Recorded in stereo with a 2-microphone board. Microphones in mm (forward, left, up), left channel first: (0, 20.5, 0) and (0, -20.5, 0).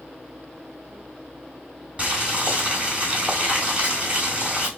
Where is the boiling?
25° right (ahead or behind), 2 m.